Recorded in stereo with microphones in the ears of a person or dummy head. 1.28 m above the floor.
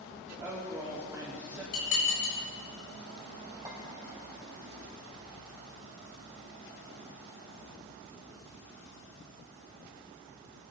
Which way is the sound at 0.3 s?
10° right (ahead or behind).